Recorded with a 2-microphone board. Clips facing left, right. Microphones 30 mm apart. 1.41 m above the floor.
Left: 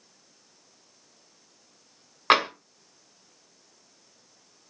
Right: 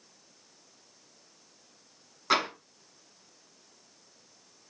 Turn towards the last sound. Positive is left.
turn(degrees=60)  # may be behind; listen again after turning